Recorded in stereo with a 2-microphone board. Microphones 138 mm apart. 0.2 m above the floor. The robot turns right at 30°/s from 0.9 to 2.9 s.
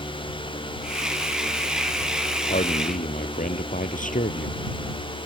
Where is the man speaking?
75° left (ahead or behind).